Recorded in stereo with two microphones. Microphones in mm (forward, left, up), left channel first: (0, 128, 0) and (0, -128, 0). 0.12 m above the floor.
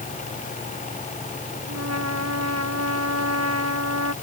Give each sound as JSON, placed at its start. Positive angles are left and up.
{"t": 1.7, "sound": "a trumpet", "side_deg": -75}